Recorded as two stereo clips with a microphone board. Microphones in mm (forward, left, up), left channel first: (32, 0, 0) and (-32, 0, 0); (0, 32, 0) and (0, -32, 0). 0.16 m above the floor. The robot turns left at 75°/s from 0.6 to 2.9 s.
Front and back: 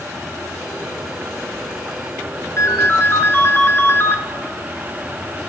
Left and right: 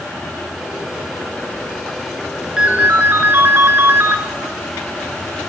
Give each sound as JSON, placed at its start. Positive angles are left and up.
{"t": 2.6, "sound": "a ringtone", "azimuth_deg": -15, "distance_m": 0.9}